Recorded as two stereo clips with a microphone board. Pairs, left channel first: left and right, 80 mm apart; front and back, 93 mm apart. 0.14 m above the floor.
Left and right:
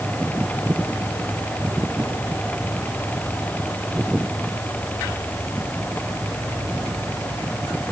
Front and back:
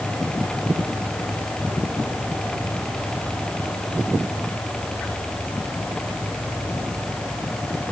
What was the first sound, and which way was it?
Only background noise.